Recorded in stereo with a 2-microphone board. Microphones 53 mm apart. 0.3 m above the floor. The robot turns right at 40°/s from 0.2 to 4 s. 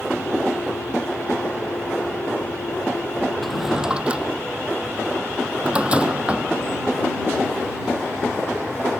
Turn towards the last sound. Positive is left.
turn(degrees=-20)  # may be behind; listen again after turning